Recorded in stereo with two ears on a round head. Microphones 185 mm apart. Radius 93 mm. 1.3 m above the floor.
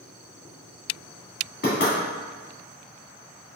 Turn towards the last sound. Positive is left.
turn(degrees=45)  # may be behind; listen again after turning